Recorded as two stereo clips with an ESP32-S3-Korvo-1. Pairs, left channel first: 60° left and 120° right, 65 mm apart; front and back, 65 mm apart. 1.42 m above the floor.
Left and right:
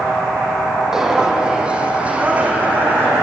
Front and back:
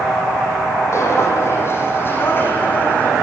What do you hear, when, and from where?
0.9 s footsteps: 40° right, 3.5 m; by 3.1 s 60° right, 4 m